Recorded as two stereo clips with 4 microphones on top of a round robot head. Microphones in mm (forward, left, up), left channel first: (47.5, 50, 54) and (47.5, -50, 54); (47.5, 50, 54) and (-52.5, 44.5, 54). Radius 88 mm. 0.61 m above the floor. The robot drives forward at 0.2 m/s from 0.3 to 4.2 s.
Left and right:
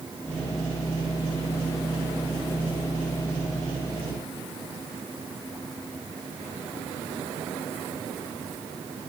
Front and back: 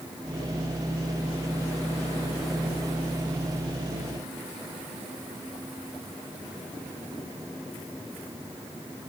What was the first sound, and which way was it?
Only background noise.